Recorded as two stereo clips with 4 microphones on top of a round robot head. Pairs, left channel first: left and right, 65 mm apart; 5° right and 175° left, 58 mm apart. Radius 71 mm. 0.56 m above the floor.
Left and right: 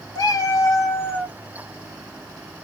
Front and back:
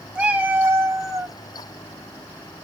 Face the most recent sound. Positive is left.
turn(degrees=155)